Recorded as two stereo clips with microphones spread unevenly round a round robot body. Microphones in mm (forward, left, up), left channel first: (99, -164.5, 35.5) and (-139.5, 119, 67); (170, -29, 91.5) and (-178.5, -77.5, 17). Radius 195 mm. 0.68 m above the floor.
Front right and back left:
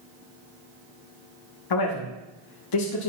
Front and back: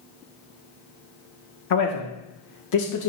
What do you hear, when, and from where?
1.7 s a man speaking: 30° right, 1.5 m